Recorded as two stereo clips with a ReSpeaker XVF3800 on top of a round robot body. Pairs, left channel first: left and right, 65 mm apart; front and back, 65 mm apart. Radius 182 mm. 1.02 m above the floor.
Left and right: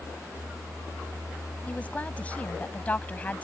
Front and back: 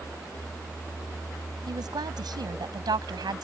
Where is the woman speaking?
160° left.